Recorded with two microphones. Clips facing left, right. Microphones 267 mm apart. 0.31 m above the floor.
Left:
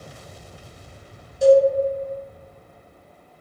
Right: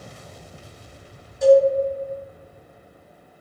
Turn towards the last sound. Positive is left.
turn(degrees=40)  # may be behind; listen again after turning